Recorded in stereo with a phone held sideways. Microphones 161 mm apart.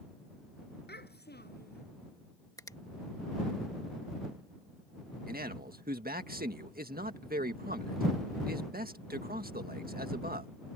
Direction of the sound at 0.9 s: 90° left.